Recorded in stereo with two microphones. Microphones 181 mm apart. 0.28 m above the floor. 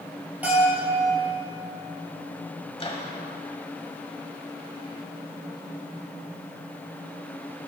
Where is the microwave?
35° left (ahead or behind), 1.1 m.